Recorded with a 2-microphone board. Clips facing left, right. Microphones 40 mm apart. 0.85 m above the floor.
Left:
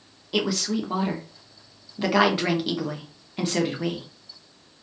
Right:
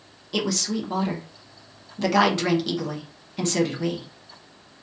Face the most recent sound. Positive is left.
turn(degrees=15)  # may be behind; listen again after turning